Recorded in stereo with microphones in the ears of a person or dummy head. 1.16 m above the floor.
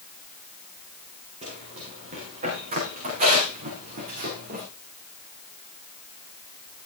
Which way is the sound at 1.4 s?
35° right (ahead or behind).